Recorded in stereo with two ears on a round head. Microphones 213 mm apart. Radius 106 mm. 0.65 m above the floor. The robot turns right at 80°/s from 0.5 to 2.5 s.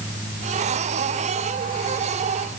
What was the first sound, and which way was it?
Only background noise.